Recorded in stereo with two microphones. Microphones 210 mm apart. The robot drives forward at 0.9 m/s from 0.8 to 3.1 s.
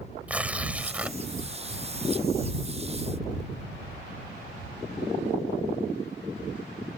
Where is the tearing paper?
5° right (ahead or behind).